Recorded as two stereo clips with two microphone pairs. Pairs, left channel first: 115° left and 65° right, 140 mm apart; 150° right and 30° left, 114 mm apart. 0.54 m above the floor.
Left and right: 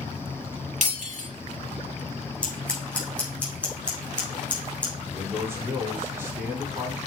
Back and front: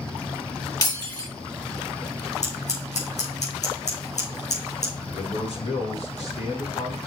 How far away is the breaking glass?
About 4 m.